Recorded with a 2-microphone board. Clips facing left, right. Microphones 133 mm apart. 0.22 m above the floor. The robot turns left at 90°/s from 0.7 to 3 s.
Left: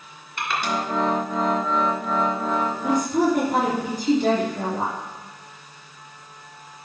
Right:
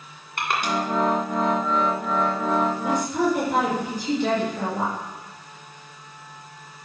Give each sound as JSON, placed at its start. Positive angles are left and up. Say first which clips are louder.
{"t": 0.4, "sound": "crushing", "louder": "right 1 dB", "side_deg": -55, "distance_m": 2.0}
{"t": 2.8, "sound": "a woman speaking", "louder": "left 2 dB", "side_deg": 60, "distance_m": 3.0}